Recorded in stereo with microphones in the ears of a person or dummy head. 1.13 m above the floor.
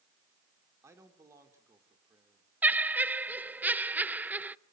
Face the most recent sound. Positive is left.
turn(degrees=-10)  # may be behind; listen again after turning